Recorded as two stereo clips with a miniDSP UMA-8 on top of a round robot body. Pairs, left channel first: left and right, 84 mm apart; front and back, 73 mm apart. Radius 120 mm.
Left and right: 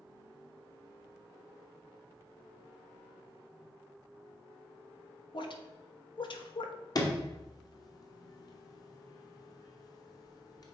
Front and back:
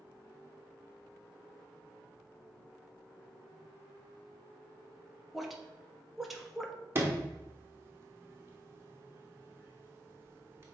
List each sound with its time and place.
5.3 s a woman speaking: 95° left, 1.2 m
7.0 s a sliding door: 125° left, 1.3 m